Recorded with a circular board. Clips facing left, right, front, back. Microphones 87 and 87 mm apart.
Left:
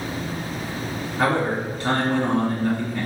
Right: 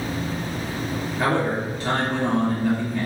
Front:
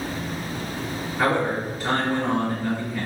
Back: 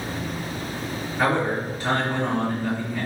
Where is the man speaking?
85° left, 1.8 m.